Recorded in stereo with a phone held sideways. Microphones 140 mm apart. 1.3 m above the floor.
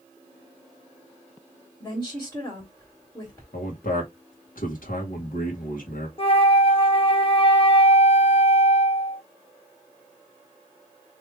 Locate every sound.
1.8 s a woman speaking: 15° left (ahead or behind), 3 m
3.5 s a man speaking: 80° left, 1.5 m
6.2 s a flute: 40° left (ahead or behind), 0.7 m